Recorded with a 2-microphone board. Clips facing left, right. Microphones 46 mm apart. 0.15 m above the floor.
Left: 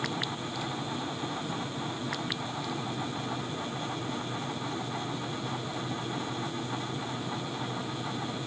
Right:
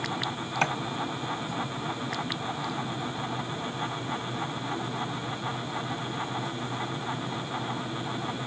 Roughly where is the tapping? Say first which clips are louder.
Right 13 dB; right.